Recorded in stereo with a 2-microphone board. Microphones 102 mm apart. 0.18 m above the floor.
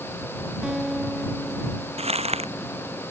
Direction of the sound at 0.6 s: 5° right (ahead or behind).